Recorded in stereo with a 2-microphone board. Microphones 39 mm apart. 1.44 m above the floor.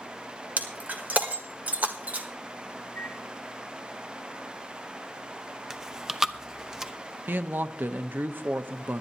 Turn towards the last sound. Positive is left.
turn(degrees=-55)  # may be behind; listen again after turning